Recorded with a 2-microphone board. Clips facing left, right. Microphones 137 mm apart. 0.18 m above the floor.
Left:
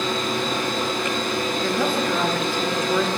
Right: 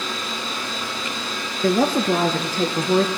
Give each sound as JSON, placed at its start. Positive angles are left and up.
{"t": 1.6, "sound": "a woman speaking", "side_deg": -45, "distance_m": 2.5}